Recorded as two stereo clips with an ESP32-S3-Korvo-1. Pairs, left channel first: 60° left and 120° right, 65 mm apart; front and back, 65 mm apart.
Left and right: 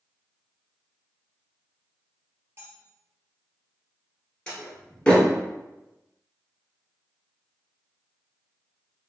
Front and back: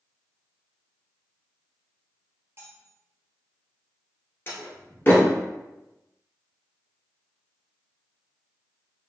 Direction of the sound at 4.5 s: 5° right.